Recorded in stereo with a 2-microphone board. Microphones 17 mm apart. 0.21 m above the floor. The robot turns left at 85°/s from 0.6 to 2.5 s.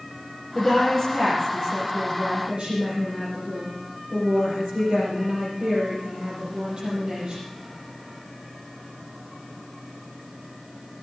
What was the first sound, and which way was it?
A woman speaking, 40° left.